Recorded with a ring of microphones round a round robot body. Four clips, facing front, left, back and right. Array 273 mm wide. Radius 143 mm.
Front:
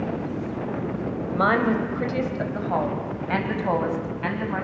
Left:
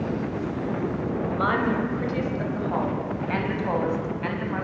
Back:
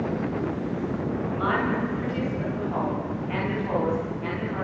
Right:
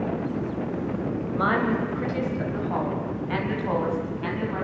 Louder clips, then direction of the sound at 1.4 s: Right 1 dB, front 6 dB; straight ahead.